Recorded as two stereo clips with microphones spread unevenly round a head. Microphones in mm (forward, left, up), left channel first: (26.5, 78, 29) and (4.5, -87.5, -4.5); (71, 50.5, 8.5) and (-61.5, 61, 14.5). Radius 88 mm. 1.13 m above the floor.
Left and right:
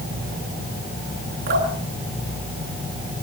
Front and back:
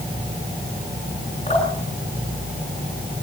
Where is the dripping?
70° right, 9 m.